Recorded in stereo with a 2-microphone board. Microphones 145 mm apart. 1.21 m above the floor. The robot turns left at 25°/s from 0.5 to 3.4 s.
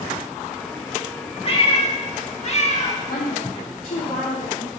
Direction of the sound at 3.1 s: 85° left.